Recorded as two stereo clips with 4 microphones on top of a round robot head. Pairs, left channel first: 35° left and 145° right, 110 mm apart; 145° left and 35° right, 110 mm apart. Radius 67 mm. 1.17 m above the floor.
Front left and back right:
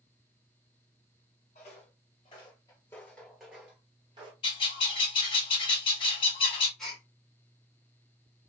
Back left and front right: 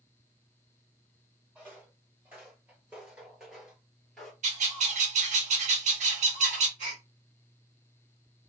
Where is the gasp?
50° right, 2 m.